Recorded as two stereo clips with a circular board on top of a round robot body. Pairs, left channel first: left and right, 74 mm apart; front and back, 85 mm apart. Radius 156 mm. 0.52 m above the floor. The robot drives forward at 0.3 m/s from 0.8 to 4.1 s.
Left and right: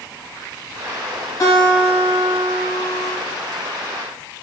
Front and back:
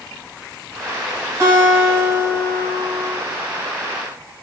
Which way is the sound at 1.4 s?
130° left.